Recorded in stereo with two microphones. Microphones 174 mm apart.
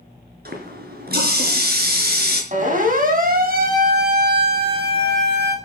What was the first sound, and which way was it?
A running tap, 60° right (ahead or behind).